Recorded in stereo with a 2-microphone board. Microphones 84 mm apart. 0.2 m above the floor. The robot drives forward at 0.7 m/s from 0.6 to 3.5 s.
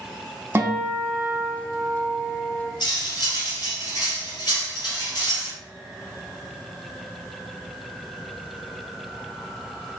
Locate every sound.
0.6 s a guitar: 30° right (ahead or behind), 0.6 m; by 2.7 s 15° right (ahead or behind), 1.4 m
2.8 s cutlery clinking: 65° left (ahead or behind), 1.4 m; by 5.5 s 50° left (ahead or behind), 1.6 m